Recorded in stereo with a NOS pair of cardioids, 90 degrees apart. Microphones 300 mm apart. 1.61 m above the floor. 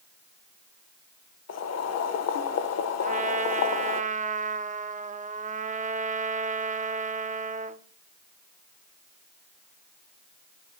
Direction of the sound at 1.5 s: 55° left.